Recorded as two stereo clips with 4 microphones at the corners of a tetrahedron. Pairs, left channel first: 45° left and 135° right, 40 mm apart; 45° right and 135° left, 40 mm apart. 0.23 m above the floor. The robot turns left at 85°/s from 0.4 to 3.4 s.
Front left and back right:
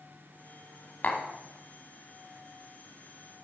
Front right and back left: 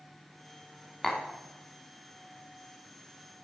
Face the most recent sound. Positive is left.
turn(degrees=175)